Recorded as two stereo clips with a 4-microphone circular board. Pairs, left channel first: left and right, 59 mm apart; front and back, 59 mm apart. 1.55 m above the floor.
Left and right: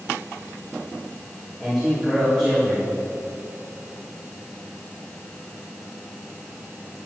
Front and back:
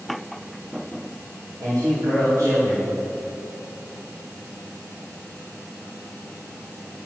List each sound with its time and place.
1.6 s a man speaking: 170° right, 2.5 m